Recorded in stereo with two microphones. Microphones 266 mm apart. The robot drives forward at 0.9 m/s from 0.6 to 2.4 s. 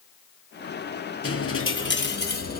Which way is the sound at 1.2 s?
55° left (ahead or behind).